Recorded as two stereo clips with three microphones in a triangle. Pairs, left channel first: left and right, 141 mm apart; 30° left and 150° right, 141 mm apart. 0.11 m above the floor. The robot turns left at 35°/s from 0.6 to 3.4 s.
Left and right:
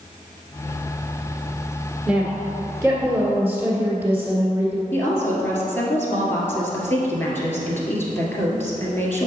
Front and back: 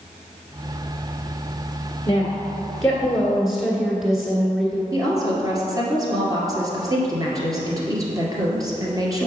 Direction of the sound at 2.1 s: 20° right.